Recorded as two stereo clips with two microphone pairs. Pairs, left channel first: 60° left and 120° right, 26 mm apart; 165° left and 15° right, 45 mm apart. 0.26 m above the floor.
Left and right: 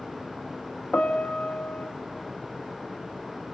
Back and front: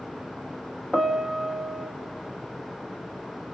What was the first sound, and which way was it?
A piano, 80° left.